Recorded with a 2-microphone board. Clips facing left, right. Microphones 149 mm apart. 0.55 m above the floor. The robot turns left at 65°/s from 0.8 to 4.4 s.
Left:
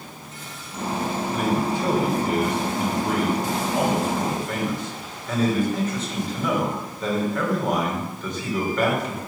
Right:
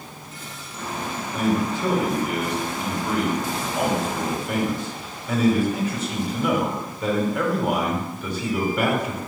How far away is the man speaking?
About 2 m.